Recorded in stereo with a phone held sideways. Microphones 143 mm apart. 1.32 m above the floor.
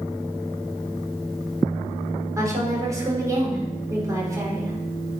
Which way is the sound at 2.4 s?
25° right (ahead or behind).